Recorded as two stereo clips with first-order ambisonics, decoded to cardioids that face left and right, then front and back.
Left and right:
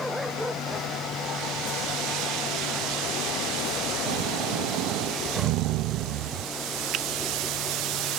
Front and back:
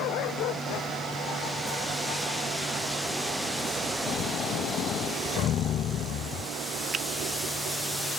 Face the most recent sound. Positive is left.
turn(degrees=-125)